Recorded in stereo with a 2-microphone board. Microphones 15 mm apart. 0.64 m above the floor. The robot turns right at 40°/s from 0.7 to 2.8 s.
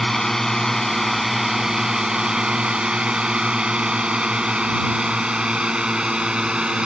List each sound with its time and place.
0.0 s a drone: 20° left (ahead or behind); by 6.9 s 80° right